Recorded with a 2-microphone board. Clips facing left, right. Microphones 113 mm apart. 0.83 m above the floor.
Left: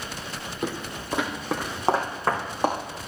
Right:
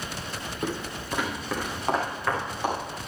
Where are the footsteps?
10° left (ahead or behind), 1.8 m; by 2.8 s 40° left (ahead or behind), 3.5 m.